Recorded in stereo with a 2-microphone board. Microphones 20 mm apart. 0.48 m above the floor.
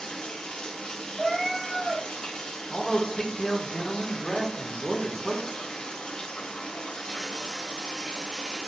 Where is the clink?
No clink in this recording.